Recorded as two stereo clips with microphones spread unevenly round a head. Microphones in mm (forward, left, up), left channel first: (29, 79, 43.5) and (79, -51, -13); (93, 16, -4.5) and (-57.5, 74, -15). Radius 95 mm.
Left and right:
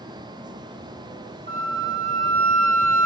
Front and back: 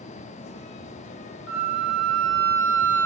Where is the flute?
45° right, 0.8 m.